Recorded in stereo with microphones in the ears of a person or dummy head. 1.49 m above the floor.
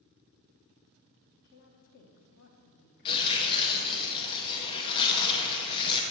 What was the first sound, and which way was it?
A woman speaking, 60° left (ahead or behind).